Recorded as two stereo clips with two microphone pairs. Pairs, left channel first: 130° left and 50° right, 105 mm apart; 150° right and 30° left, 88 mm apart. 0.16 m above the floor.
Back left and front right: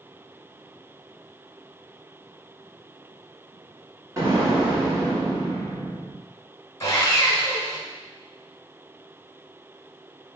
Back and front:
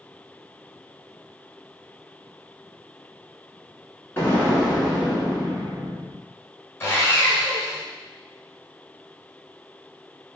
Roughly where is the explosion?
Right.